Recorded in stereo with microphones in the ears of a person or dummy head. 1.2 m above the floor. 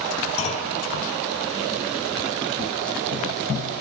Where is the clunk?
35° left (ahead or behind), 4 m.